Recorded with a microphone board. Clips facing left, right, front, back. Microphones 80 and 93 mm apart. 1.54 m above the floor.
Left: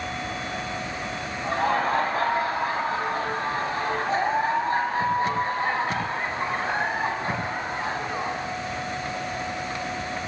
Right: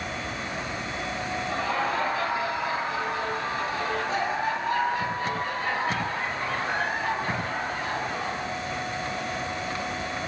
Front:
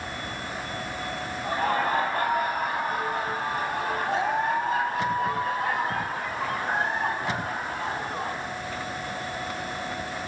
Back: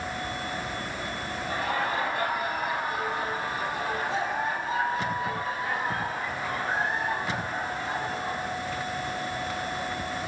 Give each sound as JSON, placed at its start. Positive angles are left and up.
{"t": 1.4, "sound": "laughter", "azimuth_deg": 45, "distance_m": 9.5}